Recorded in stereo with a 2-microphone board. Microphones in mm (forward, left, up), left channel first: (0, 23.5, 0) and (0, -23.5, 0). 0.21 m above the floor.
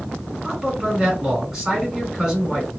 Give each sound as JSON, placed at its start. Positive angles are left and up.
{"t": 0.4, "sound": "a man speaking", "side_deg": -15, "distance_m": 1.8}